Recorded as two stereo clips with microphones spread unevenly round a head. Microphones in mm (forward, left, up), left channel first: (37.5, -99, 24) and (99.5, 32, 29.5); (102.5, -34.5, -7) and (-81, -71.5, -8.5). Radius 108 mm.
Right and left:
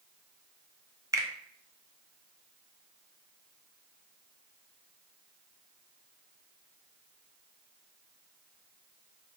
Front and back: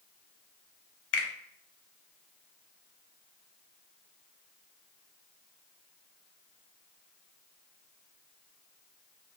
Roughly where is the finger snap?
Ahead.